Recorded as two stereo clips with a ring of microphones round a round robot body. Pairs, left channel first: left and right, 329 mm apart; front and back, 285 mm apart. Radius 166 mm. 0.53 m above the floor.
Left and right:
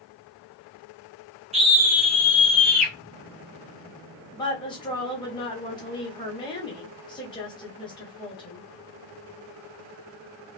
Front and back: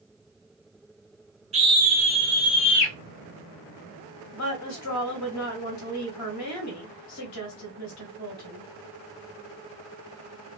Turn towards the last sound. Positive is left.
turn(degrees=15)